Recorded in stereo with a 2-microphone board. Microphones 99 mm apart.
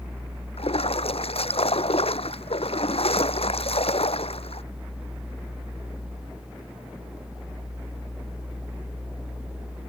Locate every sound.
0.6 s a splash: 85° left